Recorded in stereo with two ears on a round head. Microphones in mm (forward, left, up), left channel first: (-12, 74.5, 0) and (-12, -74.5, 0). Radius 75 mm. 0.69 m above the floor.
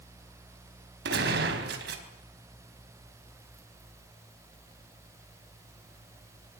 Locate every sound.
1.1 s a gunshot: 75° right (ahead or behind), 4 m